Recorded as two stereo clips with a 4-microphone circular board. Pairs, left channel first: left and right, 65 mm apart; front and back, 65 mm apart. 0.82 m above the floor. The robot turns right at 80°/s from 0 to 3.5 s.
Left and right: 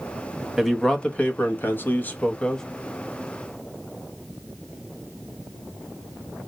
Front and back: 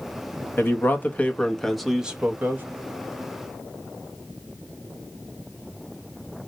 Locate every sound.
0.6 s a man speaking: 5° right, 0.7 m; by 2.6 s 160° left, 0.7 m